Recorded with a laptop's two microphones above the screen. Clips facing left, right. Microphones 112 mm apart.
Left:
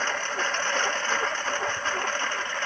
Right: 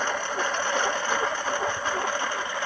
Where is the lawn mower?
10° right (ahead or behind).